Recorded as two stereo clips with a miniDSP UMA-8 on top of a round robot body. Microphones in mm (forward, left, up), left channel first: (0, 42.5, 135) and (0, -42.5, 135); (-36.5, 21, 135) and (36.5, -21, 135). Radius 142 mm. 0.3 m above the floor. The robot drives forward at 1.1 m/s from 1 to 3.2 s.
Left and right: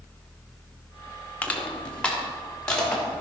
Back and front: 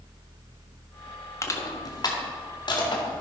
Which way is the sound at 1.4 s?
150° left.